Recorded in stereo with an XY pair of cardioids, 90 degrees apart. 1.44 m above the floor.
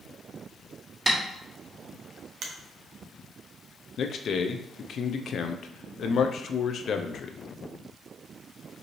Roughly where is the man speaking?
Ahead left.